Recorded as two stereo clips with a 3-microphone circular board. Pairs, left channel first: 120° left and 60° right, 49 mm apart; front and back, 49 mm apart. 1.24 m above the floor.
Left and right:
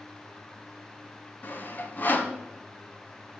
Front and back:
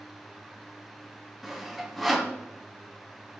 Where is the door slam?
No door slam in this recording.